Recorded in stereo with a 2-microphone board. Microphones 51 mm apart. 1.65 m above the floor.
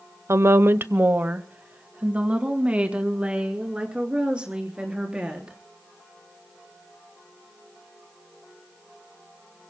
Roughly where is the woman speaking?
Right.